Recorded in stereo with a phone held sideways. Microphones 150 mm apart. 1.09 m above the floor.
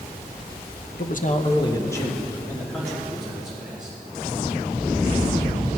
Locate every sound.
1.0 s a man speaking: 65° left (ahead or behind), 1.0 m; by 4.0 s 5° right (ahead or behind), 4.5 m